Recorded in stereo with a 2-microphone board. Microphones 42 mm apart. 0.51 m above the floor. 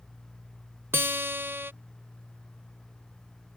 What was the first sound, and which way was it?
A guitar, 65° right (ahead or behind).